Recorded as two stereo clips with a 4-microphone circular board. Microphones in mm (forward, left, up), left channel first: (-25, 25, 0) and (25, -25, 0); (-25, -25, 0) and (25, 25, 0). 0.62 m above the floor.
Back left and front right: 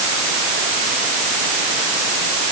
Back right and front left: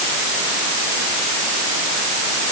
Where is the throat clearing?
I don't hear throat clearing.